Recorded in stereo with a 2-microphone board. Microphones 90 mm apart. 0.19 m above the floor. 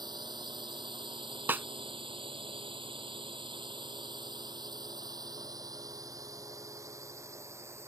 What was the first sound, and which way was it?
A drone, 55° right (ahead or behind).